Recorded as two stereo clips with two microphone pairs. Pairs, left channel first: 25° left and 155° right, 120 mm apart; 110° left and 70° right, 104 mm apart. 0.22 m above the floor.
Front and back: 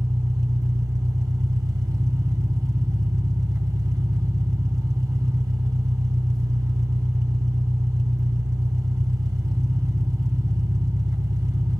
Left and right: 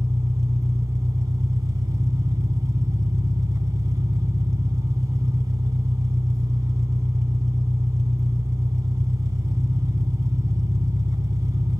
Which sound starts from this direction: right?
An engine running, at 0.0 s.